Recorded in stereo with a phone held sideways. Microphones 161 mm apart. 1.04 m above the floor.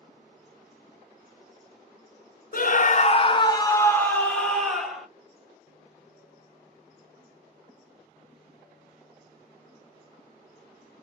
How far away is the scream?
About 0.6 m.